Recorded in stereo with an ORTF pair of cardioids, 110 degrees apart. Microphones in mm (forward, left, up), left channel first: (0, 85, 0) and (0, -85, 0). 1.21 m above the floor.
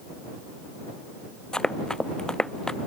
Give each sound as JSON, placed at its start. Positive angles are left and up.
{"t": 1.5, "sound": "running footsteps", "azimuth_deg": 5}